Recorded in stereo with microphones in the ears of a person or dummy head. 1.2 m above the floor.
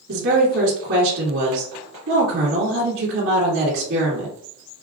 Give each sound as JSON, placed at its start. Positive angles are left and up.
{"t": 0.1, "sound": "a woman speaking", "side_deg": -60, "distance_m": 2.0}